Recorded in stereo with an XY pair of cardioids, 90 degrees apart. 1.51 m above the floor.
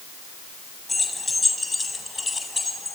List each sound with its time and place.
0.9 s keys jangling: 20° left, 8.5 m; by 3.0 s 25° left, 9.5 m